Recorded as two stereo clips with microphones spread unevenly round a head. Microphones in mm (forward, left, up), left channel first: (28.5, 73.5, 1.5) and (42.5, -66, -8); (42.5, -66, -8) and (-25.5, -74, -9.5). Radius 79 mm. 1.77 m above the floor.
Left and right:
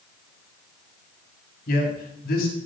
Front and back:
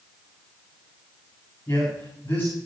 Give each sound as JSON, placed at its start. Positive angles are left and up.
{"t": 1.7, "sound": "a man speaking", "azimuth_deg": 85, "distance_m": 5.0}